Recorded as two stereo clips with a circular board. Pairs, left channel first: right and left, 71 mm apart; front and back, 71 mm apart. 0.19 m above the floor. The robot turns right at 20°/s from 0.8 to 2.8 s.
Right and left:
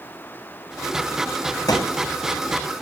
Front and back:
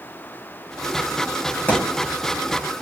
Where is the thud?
70° right, 3.5 m; by 2.1 s 60° right, 3.5 m.